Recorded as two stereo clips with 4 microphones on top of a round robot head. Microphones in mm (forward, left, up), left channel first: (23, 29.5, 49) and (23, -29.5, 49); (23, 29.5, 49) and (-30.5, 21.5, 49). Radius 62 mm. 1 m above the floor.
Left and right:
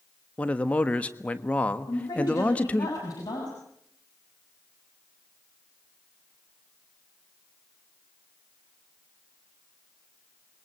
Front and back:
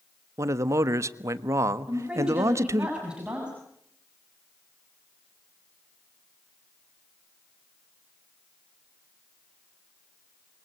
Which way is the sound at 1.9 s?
115° left.